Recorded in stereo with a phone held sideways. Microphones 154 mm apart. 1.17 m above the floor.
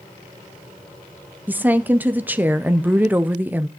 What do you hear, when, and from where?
1.5 s a woman speaking: 10° right (ahead or behind), 0.6 m